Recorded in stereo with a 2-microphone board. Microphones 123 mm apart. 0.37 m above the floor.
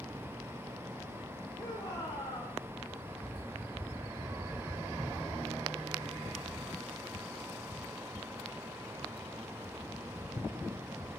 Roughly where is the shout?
Left.